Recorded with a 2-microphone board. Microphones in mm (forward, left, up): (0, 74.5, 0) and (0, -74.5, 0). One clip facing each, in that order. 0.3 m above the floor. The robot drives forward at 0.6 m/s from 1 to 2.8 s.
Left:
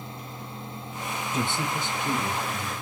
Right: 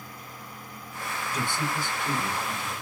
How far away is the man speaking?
About 1.2 m.